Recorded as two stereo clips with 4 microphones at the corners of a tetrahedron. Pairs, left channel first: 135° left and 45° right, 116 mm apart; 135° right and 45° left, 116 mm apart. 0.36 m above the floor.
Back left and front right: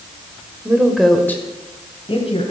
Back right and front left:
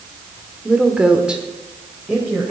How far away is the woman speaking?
About 1.4 m.